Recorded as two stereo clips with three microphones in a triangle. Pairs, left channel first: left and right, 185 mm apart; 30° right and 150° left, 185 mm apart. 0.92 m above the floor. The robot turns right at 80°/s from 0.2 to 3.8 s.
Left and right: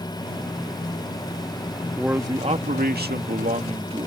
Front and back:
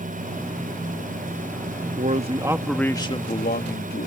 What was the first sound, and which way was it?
A man speaking, straight behind.